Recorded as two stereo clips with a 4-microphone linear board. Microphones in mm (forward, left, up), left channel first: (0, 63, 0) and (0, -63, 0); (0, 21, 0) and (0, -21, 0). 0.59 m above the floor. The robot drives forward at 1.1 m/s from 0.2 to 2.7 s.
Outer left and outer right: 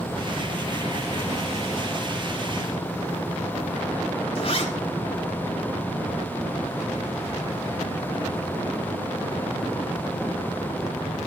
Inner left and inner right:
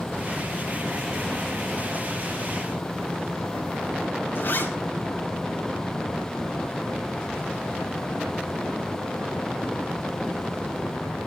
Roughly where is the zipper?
Left.